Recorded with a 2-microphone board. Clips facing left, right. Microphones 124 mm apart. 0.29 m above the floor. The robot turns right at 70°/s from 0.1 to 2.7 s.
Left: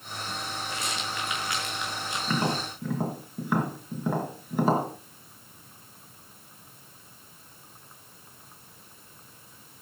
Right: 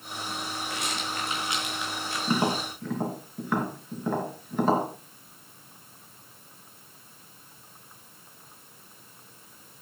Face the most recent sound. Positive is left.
turn(degrees=5)  # may be behind; listen again after turning